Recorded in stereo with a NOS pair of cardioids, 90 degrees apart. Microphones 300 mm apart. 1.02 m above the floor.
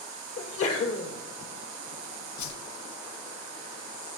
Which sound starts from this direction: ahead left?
A sneeze, at 0.4 s.